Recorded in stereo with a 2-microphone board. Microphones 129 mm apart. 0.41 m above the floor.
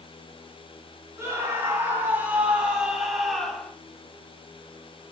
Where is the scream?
25° right (ahead or behind), 3 m; by 3.7 s 5° left (ahead or behind), 2 m.